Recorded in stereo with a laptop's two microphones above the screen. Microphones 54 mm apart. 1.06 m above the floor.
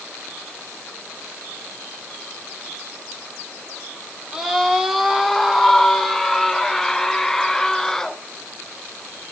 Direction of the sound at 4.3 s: 15° right (ahead or behind).